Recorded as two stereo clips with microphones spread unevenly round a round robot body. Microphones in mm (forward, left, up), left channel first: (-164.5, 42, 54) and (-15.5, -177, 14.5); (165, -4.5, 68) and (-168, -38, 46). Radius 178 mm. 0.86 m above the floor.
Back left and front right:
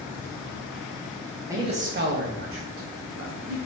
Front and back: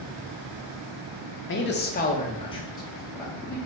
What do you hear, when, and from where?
1.5 s a man speaking: 5° right, 0.7 m; by 3.6 s 80° right, 2.0 m